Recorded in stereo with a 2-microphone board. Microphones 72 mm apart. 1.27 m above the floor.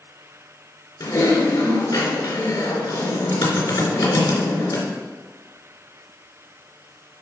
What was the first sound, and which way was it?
Typing on a keyboard, 75° left (ahead or behind).